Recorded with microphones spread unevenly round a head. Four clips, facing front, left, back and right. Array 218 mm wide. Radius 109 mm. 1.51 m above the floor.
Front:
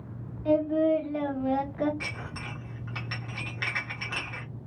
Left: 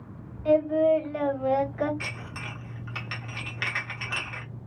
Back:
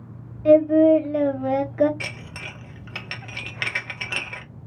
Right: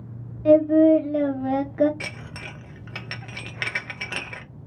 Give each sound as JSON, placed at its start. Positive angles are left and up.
{"t": 0.5, "sound": "singing", "azimuth_deg": -130, "distance_m": 1.1}
{"t": 2.0, "sound": "dishes clattering", "azimuth_deg": -130, "distance_m": 0.8}